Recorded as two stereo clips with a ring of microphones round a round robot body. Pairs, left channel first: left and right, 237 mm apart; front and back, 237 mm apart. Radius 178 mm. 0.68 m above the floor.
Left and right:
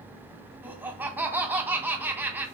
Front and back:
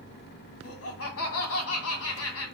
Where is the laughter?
10° right, 2.5 m.